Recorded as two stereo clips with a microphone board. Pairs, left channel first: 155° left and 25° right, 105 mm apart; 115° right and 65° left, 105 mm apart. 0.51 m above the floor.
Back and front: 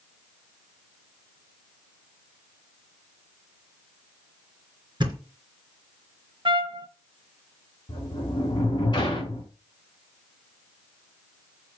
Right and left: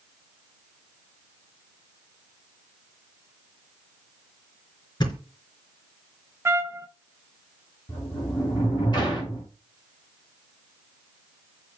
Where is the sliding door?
155° right, 4.5 m.